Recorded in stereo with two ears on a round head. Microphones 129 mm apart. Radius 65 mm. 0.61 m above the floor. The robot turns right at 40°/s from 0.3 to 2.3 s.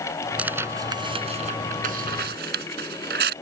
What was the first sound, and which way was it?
Tearing paper, 10° right (ahead or behind).